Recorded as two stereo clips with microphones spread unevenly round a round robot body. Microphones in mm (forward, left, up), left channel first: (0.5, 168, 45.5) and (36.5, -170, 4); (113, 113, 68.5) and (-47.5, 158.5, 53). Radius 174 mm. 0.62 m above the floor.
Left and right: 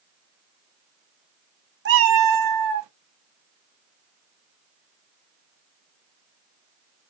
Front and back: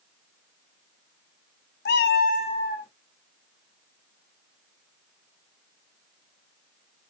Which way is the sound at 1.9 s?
30° right.